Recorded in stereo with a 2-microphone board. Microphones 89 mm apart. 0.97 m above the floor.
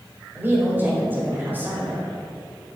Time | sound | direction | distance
0.3 | a woman speaking | 25° right (ahead or behind) | 4.5 m